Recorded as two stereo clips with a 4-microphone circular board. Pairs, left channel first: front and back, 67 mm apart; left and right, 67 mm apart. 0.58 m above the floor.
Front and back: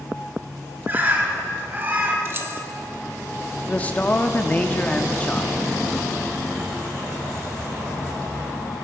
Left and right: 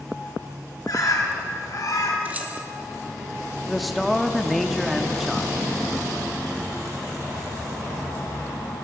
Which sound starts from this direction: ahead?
A man speaking, at 3.7 s.